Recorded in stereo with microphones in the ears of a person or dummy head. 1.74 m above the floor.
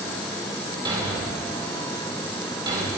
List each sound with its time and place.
0.8 s a thud: 20° right (ahead or behind), 3 m